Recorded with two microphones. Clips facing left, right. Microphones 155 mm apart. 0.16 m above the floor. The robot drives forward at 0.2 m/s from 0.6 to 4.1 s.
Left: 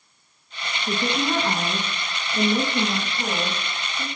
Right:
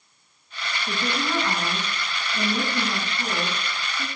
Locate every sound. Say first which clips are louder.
0.9 s a woman speaking: left 4 dB; 30° left (ahead or behind), 1.2 m